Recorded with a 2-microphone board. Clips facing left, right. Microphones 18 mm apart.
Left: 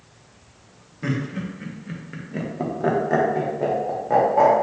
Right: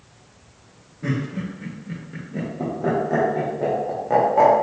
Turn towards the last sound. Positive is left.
turn(degrees=-10)  # may be behind; listen again after turning